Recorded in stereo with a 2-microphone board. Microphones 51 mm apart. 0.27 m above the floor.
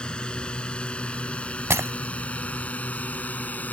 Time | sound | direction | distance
0.0 | a drone | 20° left (ahead or behind) | ?
1.7 | breaking glass | 65° right (ahead or behind) | ?